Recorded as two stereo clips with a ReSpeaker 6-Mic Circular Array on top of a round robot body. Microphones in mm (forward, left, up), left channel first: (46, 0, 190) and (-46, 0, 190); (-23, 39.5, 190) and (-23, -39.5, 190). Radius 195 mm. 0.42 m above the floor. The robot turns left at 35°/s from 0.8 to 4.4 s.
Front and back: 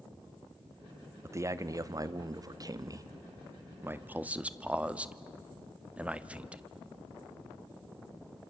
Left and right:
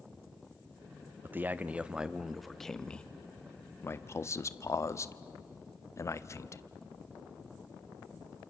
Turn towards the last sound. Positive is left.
turn(degrees=110)